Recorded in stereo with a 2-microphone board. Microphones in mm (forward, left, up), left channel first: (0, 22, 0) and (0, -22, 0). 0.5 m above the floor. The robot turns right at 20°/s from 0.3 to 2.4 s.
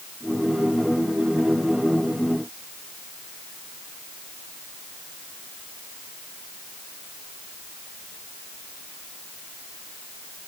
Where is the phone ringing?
No phone ringing in this recording.